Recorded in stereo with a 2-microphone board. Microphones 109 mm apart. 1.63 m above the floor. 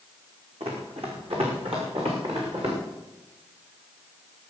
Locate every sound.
0.6 s running footsteps: 60° right (ahead or behind), 5 m; by 2.8 s 55° right (ahead or behind), 7 m